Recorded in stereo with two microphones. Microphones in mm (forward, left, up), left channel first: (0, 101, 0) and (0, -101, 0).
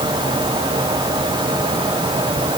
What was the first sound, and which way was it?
Only background noise.